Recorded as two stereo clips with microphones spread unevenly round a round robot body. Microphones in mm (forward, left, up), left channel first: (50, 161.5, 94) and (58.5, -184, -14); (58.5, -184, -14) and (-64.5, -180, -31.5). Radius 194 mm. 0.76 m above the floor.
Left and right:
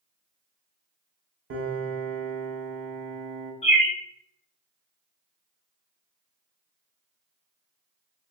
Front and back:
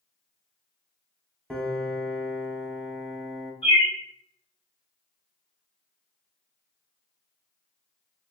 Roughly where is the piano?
Right.